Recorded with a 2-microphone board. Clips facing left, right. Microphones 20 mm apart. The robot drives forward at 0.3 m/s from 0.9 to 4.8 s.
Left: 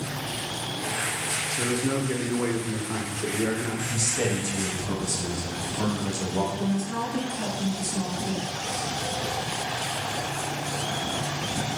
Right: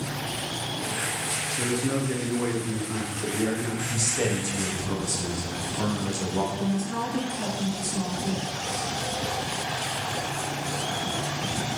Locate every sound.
1.6 s a man speaking: 10° left (ahead or behind), 0.7 m; by 3.8 s 15° left (ahead or behind), 0.6 m
3.9 s a man speaking: 20° left (ahead or behind), 0.6 m
6.5 s a woman speaking: 15° left (ahead or behind), 1.6 m